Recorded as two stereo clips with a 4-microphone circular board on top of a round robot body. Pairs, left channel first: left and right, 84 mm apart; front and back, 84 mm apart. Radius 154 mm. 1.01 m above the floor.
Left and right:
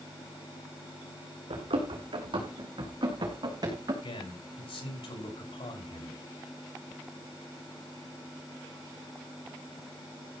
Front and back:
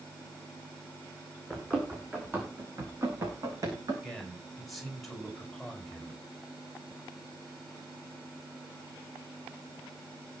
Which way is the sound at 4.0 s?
85° left.